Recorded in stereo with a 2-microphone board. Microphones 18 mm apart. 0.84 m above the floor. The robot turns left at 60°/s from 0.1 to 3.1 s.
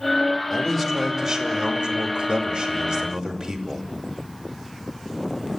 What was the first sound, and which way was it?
A man speaking, 25° left.